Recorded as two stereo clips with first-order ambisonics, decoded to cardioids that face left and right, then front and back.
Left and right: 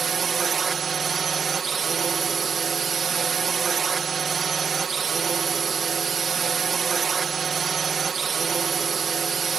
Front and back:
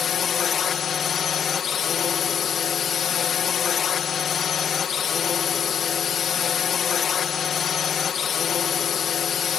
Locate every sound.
0.0 s a drone: 40° right